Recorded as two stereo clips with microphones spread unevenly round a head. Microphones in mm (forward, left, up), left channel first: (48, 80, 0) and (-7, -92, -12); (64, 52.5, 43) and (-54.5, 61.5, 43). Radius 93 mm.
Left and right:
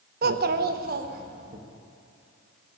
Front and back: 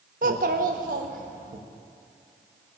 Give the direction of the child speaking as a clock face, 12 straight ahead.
5 o'clock.